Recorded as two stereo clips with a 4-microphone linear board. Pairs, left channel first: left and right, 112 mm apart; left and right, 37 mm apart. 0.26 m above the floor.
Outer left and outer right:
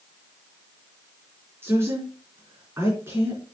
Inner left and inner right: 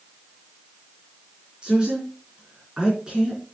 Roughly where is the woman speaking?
Right.